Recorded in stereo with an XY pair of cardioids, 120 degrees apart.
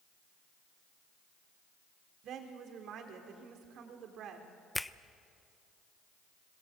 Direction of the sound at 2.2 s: 65° right.